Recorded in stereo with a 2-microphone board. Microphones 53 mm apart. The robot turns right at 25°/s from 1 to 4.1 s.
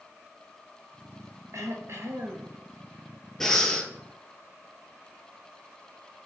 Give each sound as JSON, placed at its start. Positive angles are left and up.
{"t": 1.5, "sound": "throat clearing", "side_deg": -70, "distance_m": 0.7}
{"t": 3.4, "sound": "breathing", "side_deg": 5, "distance_m": 0.7}